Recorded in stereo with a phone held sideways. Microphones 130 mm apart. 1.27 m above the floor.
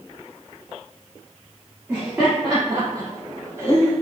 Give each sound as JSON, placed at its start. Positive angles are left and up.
{"t": 1.9, "sound": "laughter", "side_deg": -15, "distance_m": 2.5}